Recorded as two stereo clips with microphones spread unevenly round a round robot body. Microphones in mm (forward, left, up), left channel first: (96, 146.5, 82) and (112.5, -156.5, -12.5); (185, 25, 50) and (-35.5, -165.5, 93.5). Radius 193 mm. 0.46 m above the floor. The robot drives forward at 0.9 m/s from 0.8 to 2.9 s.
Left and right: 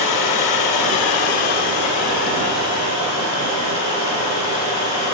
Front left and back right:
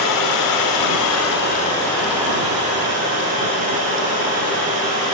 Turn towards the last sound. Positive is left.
turn(degrees=150)